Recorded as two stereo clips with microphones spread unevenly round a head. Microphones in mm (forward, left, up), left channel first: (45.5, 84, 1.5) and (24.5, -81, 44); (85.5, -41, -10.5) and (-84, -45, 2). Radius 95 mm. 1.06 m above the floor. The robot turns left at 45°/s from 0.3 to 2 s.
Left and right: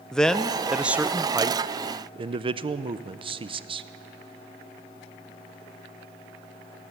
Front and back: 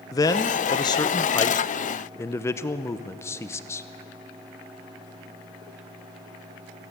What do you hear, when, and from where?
0.1 s a man speaking: 30° left, 0.7 m; by 3.9 s 45° right, 0.7 m